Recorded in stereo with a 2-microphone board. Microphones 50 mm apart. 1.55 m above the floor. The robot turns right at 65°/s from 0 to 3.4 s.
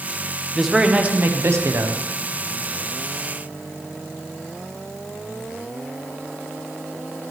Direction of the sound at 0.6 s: 175° left.